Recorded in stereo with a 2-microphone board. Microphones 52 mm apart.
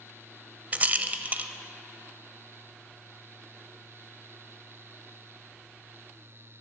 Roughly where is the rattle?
Right.